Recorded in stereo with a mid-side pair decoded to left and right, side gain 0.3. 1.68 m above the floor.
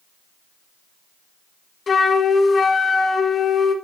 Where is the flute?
55° left, 2.5 m.